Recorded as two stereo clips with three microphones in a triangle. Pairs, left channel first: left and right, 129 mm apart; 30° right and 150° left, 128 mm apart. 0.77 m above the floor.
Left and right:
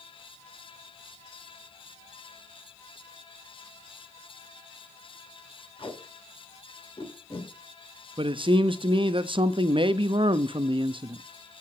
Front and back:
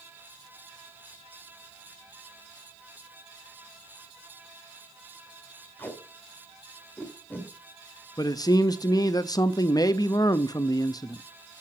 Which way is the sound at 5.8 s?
45° left.